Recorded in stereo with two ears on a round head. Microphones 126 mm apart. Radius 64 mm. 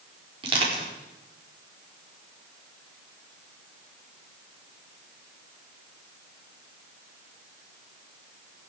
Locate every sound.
0.4 s crushing: 40° right (ahead or behind), 4.5 m